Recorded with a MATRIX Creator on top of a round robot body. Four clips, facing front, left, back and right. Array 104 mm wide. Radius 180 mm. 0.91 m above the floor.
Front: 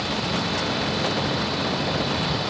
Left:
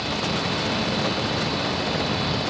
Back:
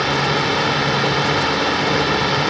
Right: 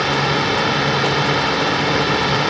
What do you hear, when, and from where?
0.0 s a drone: 135° right